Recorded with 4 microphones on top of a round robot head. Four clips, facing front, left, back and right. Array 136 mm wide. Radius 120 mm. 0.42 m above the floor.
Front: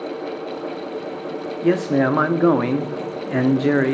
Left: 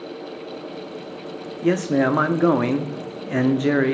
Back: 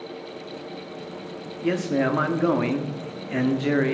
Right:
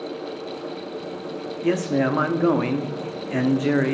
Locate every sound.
1.6 s a man speaking: 25° left, 0.8 m